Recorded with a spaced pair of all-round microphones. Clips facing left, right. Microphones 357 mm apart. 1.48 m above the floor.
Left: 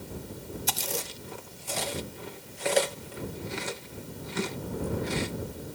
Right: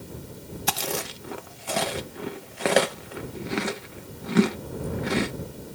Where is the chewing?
70° right (ahead or behind).